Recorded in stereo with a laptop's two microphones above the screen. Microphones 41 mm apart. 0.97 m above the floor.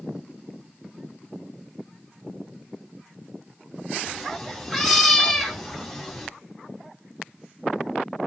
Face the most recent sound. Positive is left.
turn(degrees=0)  # may be behind; listen again after turning